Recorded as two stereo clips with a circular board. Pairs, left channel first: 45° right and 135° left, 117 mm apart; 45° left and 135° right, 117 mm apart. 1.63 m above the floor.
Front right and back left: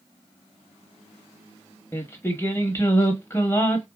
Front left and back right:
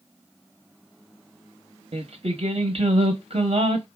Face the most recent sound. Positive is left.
turn(degrees=-115)